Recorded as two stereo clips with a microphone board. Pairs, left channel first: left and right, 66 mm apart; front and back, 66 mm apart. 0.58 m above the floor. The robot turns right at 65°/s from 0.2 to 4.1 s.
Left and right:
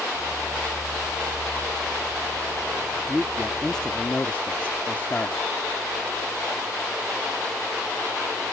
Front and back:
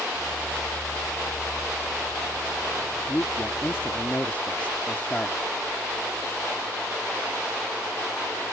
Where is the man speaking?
25° right; by 5.4 s 45° left.